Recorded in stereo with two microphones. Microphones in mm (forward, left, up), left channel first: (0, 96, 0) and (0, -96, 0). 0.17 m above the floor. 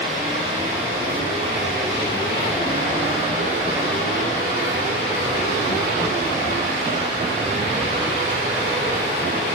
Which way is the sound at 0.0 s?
80° right.